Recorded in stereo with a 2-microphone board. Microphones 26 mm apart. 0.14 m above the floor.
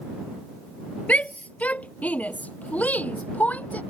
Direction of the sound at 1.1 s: 60° left (ahead or behind).